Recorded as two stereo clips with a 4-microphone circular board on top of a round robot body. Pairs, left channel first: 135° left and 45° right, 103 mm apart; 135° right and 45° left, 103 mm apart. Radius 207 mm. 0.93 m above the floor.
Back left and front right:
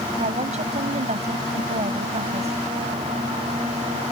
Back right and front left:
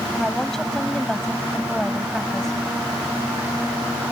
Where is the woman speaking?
50° right.